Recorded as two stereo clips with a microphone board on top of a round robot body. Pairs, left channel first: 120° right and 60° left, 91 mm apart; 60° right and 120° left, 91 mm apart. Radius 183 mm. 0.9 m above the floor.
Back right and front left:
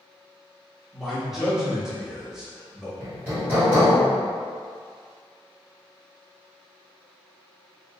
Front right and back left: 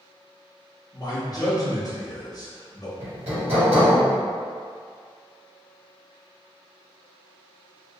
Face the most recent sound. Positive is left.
turn(degrees=125)